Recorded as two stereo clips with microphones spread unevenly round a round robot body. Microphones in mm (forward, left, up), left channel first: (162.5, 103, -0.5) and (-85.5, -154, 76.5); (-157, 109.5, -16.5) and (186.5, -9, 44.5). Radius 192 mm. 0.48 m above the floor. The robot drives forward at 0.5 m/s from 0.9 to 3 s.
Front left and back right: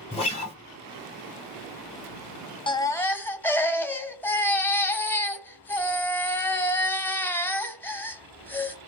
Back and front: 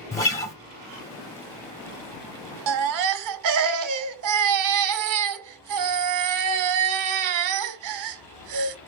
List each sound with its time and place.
0.1 s a guitar: 95° left, 1.6 m
2.7 s a baby crying: 15° right, 0.8 m; by 8.8 s 20° right, 0.7 m